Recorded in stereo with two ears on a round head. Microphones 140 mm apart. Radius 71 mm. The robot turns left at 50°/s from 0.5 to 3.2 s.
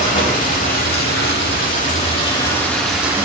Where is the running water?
120° left, 1.8 m; by 3.2 s 15° right, 1.8 m.